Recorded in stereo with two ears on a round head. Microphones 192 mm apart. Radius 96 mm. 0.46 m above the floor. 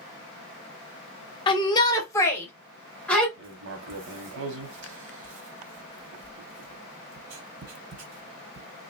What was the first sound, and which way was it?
A shout, 20° left (ahead or behind).